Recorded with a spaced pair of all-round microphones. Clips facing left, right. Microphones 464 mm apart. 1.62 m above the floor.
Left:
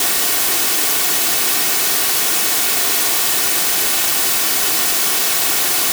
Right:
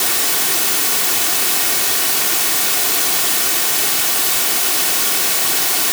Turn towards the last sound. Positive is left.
No sound to turn to.